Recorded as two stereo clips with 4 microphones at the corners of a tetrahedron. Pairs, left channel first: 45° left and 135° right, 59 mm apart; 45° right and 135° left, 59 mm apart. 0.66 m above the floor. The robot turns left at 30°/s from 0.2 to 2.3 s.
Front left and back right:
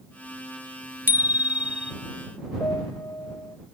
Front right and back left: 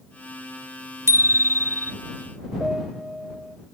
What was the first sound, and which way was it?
A bicycle bell, 170° left.